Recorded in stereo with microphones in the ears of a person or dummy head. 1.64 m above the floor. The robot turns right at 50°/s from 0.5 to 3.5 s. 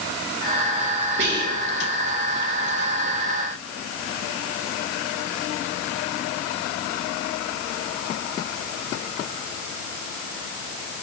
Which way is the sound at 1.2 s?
65° right (ahead or behind).